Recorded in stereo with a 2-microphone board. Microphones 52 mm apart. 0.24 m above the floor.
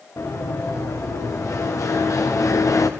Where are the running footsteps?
80° left, 5.5 m.